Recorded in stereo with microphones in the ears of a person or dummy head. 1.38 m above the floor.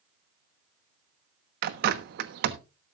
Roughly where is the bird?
Right.